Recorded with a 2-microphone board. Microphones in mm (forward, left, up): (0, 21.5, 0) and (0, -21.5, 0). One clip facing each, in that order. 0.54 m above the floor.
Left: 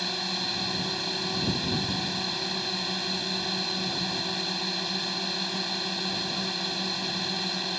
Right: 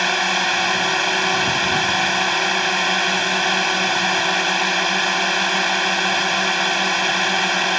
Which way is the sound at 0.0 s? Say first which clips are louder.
Right 14 dB; 75° right (ahead or behind).